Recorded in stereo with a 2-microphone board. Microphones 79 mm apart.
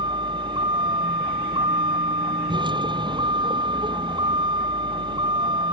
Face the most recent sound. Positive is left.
turn(degrees=-85)